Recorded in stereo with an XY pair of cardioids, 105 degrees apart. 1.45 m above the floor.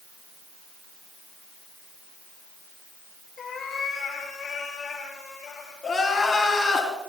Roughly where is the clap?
I don't hear a clap.